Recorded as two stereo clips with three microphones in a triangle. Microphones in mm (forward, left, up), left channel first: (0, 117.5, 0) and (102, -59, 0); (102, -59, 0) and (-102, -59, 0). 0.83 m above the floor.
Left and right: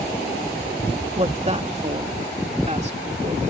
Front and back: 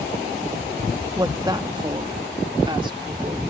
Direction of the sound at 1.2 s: 110° right.